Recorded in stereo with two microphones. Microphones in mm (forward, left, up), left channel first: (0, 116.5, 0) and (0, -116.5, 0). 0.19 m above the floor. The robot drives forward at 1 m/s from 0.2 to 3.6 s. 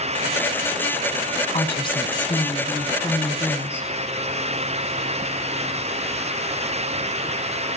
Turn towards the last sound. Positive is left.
turn(degrees=10)  # may be behind; listen again after turning